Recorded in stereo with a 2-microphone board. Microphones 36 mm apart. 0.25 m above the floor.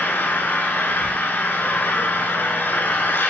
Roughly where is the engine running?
Left.